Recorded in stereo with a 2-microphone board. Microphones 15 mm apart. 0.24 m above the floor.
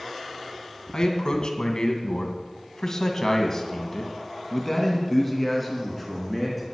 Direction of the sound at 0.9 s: 50° left (ahead or behind).